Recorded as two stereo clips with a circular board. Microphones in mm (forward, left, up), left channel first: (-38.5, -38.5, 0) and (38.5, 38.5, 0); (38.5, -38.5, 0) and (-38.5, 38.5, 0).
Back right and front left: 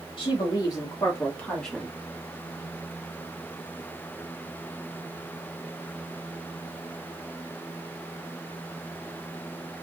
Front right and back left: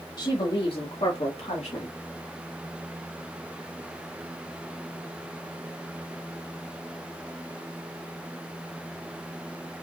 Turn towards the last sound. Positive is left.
turn(degrees=-40)